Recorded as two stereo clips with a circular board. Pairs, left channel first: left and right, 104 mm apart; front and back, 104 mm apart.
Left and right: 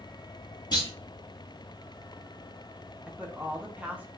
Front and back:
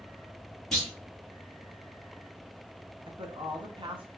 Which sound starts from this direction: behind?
A woman speaking, at 3.1 s.